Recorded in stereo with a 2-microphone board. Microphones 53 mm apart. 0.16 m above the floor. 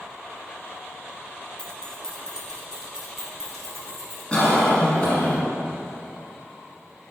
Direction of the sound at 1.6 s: 20° left (ahead or behind).